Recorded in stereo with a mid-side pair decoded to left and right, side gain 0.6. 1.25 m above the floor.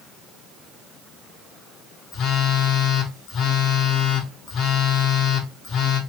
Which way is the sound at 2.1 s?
50° left.